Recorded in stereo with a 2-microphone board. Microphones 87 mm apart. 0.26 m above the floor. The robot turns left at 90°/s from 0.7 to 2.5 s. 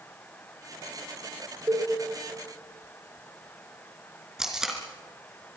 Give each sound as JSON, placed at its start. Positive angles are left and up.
{"t": 1.7, "sound": "a cowbell", "side_deg": -45, "distance_m": 4.0}
{"t": 4.4, "sound": "tape being pulled", "side_deg": -5, "distance_m": 3.5}